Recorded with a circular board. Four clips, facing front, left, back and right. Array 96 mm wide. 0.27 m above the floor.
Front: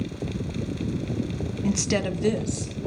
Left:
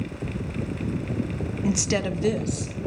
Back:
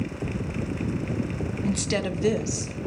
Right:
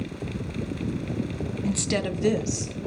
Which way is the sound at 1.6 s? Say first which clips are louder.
Left 2 dB, front 2 dB; 60° left.